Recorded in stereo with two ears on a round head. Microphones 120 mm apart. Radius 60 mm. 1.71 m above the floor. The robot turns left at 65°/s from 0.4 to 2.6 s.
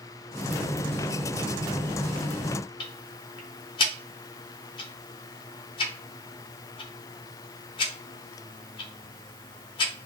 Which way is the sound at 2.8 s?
40° left (ahead or behind).